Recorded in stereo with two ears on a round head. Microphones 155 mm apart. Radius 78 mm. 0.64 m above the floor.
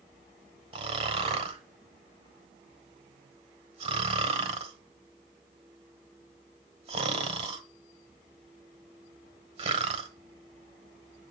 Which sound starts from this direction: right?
Snoring, at 0.7 s.